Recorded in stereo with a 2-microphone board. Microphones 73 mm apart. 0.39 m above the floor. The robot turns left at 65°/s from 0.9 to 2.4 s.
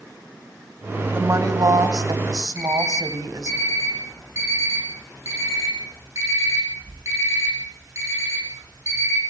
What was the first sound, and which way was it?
A woman speaking, 35° right.